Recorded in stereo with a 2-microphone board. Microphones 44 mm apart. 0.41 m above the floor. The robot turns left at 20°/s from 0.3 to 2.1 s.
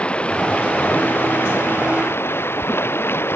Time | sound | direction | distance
0.0 | running water | 155° left | ?